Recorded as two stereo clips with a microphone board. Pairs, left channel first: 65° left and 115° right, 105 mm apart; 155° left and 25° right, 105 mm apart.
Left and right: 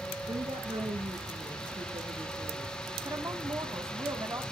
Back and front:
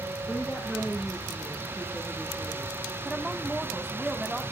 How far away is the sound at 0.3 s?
About 2 m.